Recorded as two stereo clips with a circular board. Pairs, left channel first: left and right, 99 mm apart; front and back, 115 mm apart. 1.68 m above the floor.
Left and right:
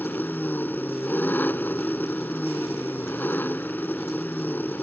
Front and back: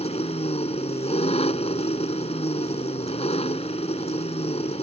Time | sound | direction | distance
0.0 | an engine running | 20° left | ?